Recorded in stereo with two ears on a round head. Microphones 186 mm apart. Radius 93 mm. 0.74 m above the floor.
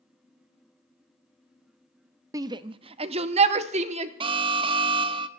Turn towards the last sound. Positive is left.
turn(degrees=-25)  # may be behind; listen again after turning